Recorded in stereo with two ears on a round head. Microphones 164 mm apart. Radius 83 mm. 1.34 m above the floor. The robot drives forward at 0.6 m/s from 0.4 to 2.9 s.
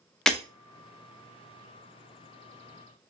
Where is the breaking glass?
5° left (ahead or behind), 0.6 m.